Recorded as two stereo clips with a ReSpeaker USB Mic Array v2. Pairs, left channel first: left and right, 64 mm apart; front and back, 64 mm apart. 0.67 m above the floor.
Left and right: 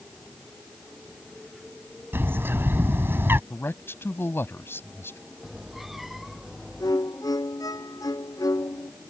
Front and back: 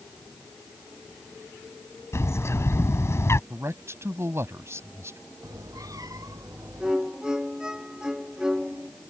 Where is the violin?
100° left.